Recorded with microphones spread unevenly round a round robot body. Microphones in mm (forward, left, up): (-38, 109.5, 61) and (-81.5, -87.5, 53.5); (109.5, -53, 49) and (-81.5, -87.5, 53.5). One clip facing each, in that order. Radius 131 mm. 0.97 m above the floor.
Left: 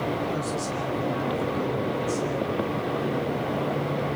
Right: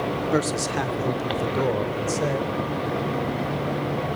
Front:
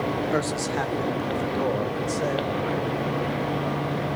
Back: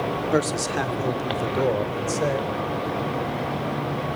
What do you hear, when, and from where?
0.3 s a man speaking: 110° right, 2.5 m; by 2.5 s 115° right, 4.5 m